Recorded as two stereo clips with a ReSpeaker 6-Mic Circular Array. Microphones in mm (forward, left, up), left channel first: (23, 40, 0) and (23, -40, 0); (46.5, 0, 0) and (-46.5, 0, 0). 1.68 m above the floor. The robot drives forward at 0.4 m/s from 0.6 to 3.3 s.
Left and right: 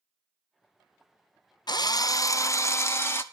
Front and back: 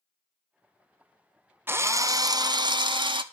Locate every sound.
1.7 s a drill: 115° left, 0.6 m; by 3.2 s 150° left, 1.0 m